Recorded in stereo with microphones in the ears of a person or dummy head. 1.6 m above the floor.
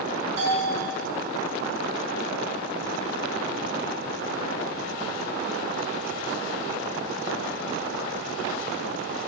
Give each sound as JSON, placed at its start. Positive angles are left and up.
{"t": 0.4, "sound": "a bell", "side_deg": -35, "distance_m": 2.5}